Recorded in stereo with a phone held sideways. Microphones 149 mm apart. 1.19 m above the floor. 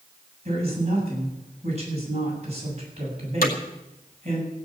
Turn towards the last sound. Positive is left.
turn(degrees=75)  # may be behind; listen again after turning